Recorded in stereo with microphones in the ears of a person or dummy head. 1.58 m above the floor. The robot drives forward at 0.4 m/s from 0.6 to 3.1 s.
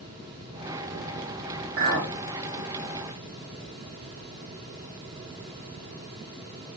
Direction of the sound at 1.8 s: 35° right (ahead or behind).